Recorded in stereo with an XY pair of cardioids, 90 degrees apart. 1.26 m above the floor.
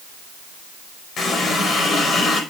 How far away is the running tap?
About 5.5 m.